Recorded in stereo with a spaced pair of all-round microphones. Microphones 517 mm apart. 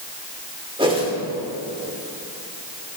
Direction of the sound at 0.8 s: 10° right (ahead or behind).